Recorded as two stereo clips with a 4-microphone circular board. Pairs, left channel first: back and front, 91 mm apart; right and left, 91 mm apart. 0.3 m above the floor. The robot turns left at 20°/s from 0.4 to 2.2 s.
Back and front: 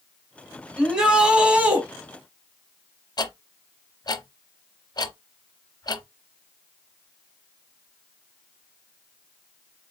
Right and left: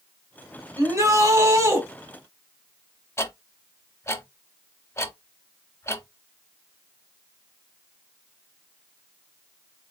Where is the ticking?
145° right, 0.8 m.